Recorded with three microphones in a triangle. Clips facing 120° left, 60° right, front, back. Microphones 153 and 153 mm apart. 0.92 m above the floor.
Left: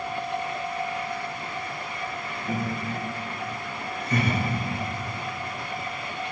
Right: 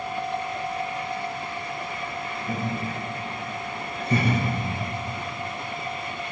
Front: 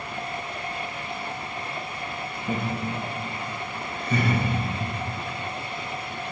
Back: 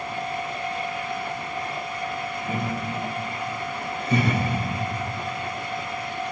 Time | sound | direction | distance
2.5 | laughter | 55° left | 1.3 m